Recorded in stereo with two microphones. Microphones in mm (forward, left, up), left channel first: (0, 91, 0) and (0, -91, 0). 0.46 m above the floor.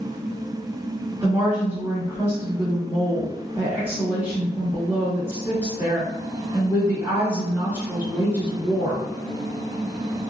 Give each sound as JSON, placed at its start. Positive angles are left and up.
{"t": 1.2, "sound": "a woman speaking", "side_deg": -10, "distance_m": 2.0}